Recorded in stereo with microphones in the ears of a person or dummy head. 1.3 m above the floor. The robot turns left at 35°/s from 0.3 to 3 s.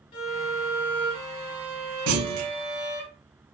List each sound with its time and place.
0.1 s a violin: 30° left, 0.7 m; by 3.1 s 65° right, 0.7 m
2.1 s a clunk: 80° right, 0.5 m; by 2.5 s 70° right (ahead or behind), 0.5 m